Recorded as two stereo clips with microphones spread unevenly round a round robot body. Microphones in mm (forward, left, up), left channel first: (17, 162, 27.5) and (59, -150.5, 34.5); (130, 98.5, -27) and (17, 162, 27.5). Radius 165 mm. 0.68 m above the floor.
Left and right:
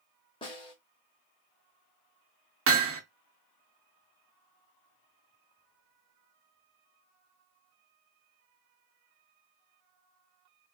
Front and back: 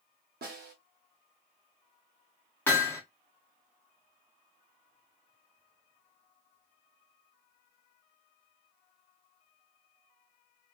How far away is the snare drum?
About 0.9 m.